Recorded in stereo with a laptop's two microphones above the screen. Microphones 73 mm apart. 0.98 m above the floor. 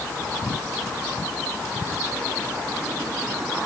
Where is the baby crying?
I don't hear a baby crying.